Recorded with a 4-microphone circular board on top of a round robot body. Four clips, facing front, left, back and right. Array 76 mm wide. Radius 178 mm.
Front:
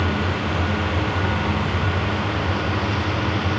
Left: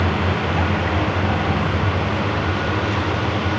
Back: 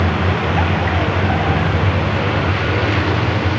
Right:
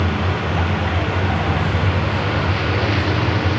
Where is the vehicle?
175° left; by 3.6 s 155° right.